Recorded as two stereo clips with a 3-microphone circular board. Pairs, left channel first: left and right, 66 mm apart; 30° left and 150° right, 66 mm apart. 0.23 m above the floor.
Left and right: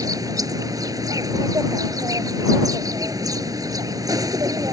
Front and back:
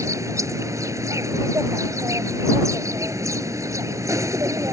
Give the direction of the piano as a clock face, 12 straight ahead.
No piano in this recording.